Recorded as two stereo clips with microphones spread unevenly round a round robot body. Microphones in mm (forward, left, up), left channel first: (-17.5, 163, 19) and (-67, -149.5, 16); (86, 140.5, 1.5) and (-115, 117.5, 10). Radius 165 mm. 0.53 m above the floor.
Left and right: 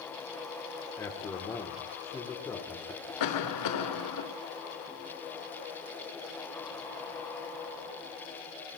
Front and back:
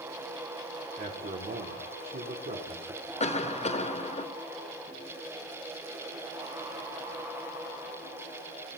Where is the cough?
60° left, 1.7 m.